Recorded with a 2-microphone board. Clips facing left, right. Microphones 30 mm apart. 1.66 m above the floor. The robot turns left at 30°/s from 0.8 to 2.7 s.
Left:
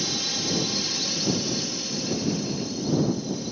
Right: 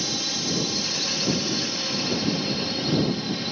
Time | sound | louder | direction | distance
0.0 | a drone | even | 5° right | ?